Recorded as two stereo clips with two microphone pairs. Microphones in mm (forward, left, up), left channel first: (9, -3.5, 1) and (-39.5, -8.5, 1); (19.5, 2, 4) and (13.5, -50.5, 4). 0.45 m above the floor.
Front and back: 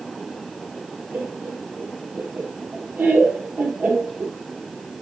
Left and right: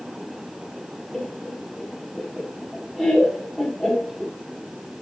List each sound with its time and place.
1.1 s laughter: 165° left, 1.5 m